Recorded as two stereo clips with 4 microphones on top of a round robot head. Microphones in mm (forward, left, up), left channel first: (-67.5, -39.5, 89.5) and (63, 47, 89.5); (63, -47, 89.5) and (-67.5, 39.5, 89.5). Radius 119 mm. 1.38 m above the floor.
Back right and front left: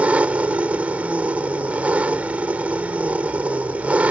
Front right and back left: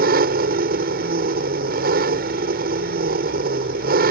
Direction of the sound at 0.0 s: 115° left.